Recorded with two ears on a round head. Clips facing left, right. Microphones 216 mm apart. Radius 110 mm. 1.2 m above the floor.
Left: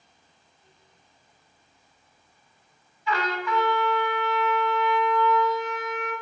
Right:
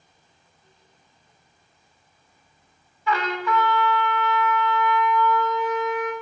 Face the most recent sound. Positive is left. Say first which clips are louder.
# right 3 dB
turn(degrees=-50)  # may be behind; listen again after turning